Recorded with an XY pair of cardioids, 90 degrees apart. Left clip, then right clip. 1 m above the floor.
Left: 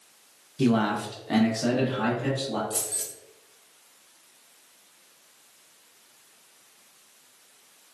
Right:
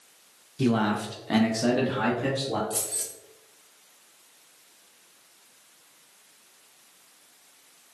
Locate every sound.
0.6 s a man speaking: 15° left, 0.6 m; by 2.6 s 60° right, 1.2 m
2.7 s keys jangling: 5° right, 1.0 m